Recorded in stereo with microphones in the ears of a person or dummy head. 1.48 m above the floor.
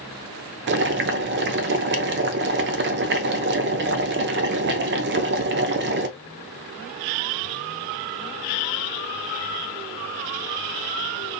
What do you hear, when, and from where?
0.7 s boiling: 55° right (ahead or behind), 0.5 m